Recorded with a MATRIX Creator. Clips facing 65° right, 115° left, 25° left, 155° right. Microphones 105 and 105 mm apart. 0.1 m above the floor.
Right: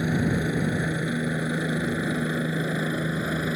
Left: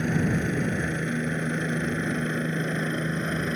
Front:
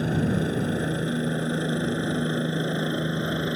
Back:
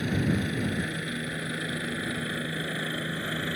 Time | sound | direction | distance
0.0 | a helicopter | 10° left | ?